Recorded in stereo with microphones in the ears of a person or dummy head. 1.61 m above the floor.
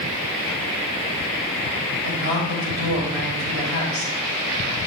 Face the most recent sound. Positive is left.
turn(degrees=-80)